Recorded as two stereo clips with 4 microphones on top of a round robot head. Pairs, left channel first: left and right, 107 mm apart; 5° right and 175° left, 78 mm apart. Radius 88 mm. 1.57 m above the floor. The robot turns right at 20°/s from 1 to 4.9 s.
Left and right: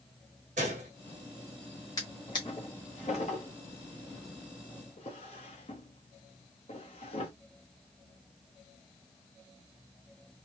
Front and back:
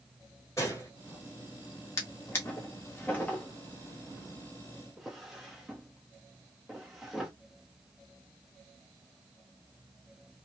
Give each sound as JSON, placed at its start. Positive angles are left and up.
{"t": 0.6, "sound": "a gunshot", "azimuth_deg": -75, "distance_m": 0.8}
{"t": 2.0, "sound": "a drawer", "azimuth_deg": 30, "distance_m": 0.8}